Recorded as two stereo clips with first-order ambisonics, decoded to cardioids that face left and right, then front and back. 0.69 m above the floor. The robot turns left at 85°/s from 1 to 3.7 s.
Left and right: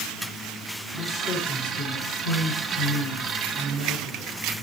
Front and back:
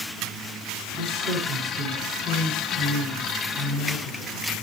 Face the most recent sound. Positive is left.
turn(degrees=-35)